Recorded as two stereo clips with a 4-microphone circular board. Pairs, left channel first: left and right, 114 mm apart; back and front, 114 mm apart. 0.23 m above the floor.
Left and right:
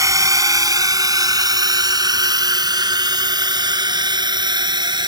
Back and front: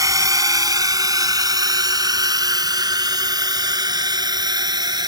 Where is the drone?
45° right; by 5.1 s 50° right.